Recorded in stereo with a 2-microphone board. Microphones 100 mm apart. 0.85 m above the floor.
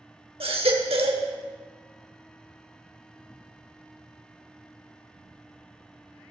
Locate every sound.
0.4 s a baby crying: 80° right, 1.1 m